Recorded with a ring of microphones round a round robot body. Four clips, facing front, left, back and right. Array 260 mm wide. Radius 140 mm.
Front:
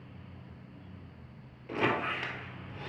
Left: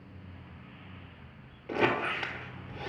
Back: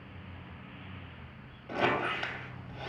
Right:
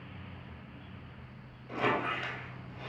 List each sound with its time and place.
1.7 s a squeak: 75° left, 1.3 m